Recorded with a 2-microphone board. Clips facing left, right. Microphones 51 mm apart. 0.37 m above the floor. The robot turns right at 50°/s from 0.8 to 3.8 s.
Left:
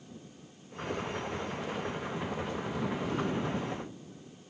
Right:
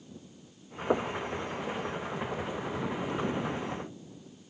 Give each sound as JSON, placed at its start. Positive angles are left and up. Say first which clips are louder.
{"t": 0.9, "sound": "knocking", "louder": "right 7 dB", "side_deg": -65}